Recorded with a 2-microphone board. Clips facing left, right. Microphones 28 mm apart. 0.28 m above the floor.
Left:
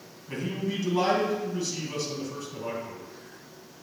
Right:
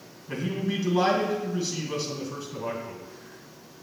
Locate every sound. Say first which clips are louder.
0.3 s a man speaking: right 2 dB; 10° right (ahead or behind), 2.5 m